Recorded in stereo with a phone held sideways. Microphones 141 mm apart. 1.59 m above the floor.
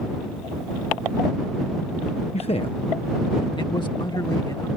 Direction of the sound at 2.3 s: 45° left (ahead or behind).